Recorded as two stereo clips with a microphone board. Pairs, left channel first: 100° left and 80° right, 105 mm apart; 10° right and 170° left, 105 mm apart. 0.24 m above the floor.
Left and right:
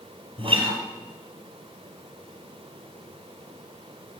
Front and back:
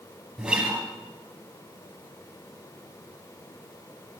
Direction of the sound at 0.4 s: 110° right.